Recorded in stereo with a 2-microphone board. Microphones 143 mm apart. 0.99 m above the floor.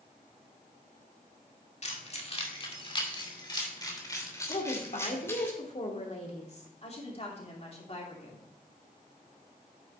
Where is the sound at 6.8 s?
45° left (ahead or behind), 3 m.